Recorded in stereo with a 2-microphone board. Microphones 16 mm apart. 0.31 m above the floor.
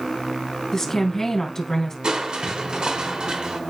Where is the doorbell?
I don't hear a doorbell.